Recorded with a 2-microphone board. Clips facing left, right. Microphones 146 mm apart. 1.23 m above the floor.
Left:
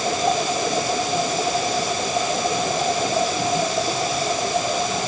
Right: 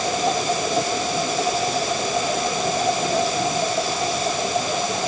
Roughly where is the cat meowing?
I don't hear a cat meowing.